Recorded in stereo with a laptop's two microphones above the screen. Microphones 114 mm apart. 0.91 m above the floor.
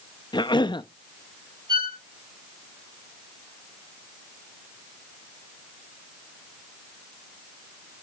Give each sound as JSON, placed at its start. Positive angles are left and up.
{"t": 0.3, "sound": "a cough", "side_deg": 40, "distance_m": 0.7}
{"t": 1.7, "sound": "a violin", "side_deg": -40, "distance_m": 2.5}